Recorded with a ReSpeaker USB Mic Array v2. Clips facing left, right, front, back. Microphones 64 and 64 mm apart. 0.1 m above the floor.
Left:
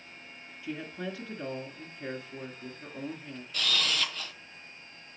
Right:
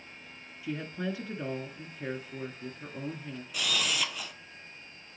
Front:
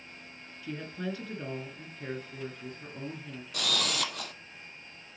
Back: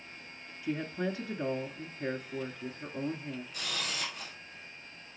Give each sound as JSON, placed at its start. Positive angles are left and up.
{"t": 0.6, "sound": "a woman speaking", "azimuth_deg": -155, "distance_m": 1.2}
{"t": 3.5, "sound": "a camera shutter", "azimuth_deg": -10, "distance_m": 0.9}